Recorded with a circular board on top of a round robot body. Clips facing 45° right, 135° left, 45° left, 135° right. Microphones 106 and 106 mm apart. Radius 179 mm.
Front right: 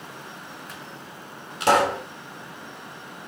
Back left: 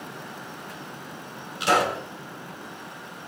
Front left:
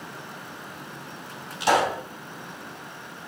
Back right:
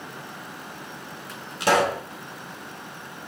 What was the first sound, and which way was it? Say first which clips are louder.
A pop: front right 3 dB, back right 1 dB; 90° right.